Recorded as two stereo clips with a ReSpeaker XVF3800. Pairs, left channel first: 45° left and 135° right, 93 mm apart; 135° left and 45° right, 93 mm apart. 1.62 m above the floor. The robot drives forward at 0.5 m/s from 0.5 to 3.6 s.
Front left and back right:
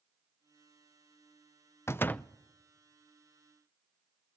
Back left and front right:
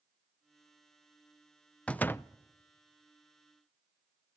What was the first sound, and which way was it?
A door slam, 70° left.